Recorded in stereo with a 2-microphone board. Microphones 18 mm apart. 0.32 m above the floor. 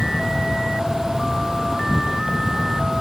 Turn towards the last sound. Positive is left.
turn(degrees=-15)  # may be behind; listen again after turning